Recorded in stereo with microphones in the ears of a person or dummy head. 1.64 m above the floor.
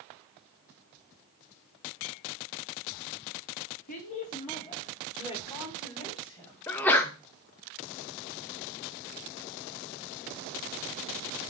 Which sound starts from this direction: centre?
A sneeze, at 6.7 s.